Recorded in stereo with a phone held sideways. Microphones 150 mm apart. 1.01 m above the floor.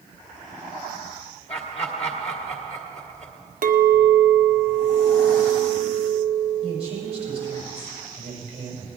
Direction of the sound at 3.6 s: 65° right (ahead or behind).